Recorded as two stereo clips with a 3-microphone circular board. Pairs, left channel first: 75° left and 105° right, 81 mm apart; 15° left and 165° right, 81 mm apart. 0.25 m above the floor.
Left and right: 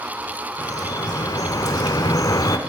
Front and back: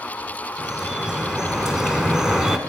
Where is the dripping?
110° left, 0.6 m.